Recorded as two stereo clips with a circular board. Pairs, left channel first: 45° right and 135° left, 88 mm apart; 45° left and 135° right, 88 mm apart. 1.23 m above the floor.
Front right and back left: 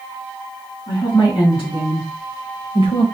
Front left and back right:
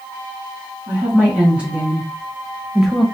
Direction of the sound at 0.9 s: 60° right.